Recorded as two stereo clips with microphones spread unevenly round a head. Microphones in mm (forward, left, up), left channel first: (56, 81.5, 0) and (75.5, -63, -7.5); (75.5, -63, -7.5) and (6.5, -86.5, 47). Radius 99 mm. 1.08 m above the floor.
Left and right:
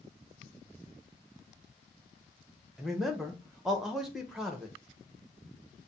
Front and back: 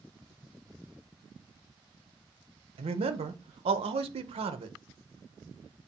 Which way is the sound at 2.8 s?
165° right.